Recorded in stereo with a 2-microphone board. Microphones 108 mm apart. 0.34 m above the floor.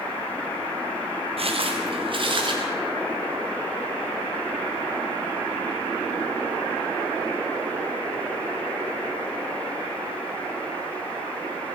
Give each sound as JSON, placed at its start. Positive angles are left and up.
{"t": 1.4, "sound": "footsteps", "side_deg": -60, "distance_m": 4.0}